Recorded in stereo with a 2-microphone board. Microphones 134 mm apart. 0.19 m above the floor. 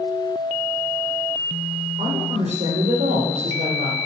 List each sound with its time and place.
2.0 s a woman speaking: 60° right (ahead or behind), 5.5 m